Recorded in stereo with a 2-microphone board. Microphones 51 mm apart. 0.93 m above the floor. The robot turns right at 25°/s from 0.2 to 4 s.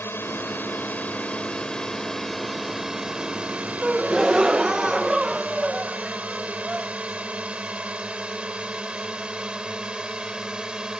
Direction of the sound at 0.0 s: 50° left (ahead or behind).